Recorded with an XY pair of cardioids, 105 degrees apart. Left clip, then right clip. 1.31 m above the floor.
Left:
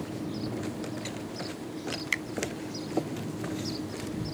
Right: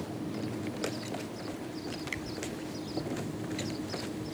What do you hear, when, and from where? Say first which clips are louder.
0.0 s a fan: left 2 dB; 10° left
2.1 s a finger snap: left 10 dB; 55° left